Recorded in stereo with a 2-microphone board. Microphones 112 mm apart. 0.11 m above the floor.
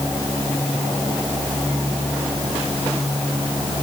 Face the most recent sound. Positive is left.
No sound to turn to.